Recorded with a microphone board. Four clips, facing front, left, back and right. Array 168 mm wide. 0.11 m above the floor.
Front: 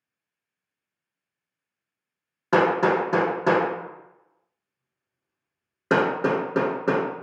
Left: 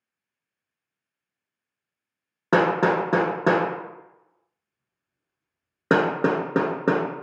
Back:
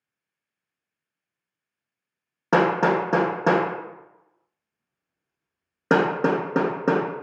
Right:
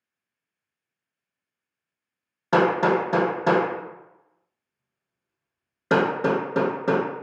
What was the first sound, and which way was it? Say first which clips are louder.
Hammering: even, even; 115° left.